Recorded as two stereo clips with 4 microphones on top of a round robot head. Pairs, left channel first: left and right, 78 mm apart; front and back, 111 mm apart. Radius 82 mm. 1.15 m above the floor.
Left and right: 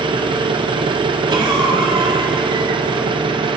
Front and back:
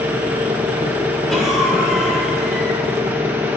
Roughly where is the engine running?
Right.